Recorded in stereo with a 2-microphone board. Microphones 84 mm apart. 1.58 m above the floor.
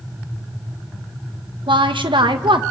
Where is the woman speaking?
85° right, 1.9 m.